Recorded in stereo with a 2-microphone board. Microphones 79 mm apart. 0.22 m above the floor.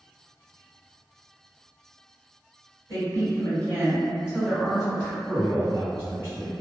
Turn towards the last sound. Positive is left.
turn(degrees=-30)  # may be behind; listen again after turning